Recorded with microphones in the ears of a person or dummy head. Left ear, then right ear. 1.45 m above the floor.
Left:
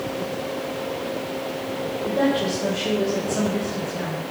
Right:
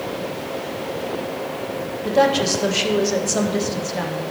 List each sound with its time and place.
2.0 s a woman speaking: 75° right (ahead or behind), 1.8 m